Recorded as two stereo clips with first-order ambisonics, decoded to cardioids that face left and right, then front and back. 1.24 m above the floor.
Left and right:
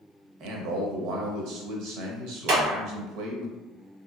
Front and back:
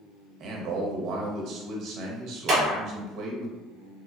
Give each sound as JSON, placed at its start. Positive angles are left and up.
{"t": 0.4, "sound": "a man speaking", "azimuth_deg": -130, "distance_m": 0.7}
{"t": 2.5, "sound": "a clap", "azimuth_deg": -120, "distance_m": 1.1}